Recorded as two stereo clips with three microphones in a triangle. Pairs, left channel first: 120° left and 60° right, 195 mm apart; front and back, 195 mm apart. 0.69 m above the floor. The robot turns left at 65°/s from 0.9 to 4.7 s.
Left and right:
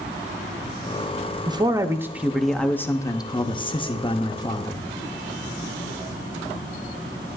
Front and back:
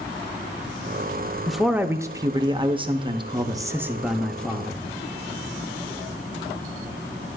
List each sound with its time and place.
1.5 s a man speaking: 85° right, 0.6 m; by 4.9 s 60° left, 0.6 m